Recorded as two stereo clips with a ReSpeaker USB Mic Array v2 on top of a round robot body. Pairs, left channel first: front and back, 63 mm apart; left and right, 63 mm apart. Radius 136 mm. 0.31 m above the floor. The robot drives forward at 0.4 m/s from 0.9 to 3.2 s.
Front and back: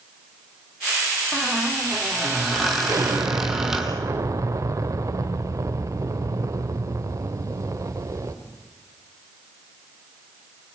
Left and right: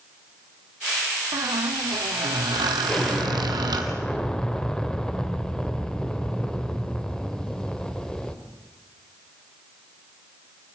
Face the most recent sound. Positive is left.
turn(degrees=170)